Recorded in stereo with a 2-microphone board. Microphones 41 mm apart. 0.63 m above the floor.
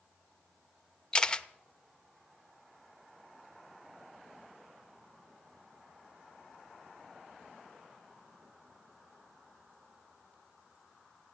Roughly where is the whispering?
I don't hear whispering.